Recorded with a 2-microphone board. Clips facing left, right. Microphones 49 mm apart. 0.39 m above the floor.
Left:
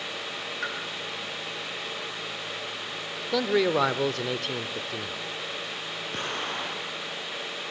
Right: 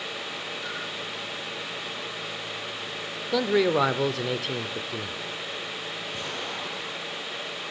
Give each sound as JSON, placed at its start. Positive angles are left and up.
{"t": 0.6, "sound": "a pop", "side_deg": 50, "distance_m": 7.0}
{"t": 3.3, "sound": "a man speaking", "side_deg": 0, "distance_m": 0.8}
{"t": 6.1, "sound": "an explosion", "side_deg": 45, "distance_m": 4.5}